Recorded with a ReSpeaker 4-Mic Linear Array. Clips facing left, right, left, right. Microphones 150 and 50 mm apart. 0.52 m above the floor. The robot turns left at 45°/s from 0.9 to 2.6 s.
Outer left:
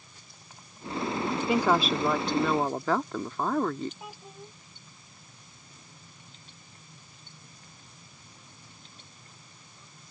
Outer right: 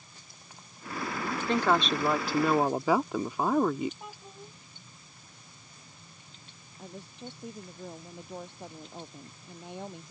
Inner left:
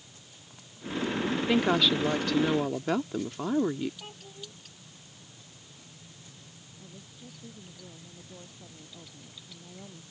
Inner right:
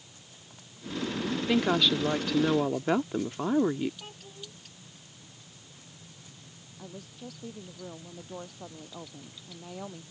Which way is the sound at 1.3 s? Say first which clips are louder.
Outer left 1 dB, even; 15° left (ahead or behind).